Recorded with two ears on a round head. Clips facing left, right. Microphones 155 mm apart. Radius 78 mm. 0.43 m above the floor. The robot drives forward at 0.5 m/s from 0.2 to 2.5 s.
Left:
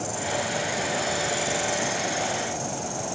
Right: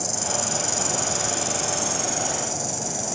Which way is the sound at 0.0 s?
75° right (ahead or behind).